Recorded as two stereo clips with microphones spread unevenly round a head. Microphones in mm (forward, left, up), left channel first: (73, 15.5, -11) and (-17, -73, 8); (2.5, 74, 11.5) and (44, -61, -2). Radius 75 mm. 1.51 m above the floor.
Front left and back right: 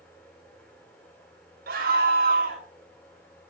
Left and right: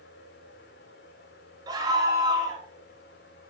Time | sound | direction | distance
0.0 | a fan | 130° left | 4.5 m
1.7 | a scream | 140° right | 6.5 m